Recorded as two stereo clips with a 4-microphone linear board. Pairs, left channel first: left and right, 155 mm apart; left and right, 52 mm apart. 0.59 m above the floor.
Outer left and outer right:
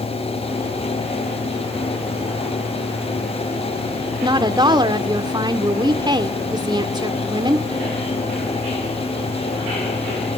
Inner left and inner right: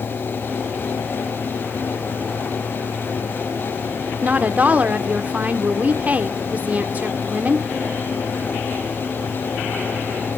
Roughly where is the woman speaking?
Right.